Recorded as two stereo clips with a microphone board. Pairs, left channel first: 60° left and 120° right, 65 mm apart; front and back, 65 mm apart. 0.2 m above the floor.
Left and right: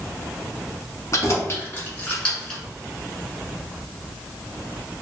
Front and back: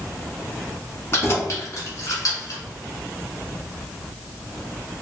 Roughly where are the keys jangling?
Ahead left.